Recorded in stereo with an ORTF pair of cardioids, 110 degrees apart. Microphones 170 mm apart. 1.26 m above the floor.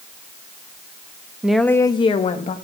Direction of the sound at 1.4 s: 5° right.